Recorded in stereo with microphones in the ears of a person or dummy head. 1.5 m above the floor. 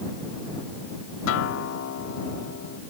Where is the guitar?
70° left (ahead or behind).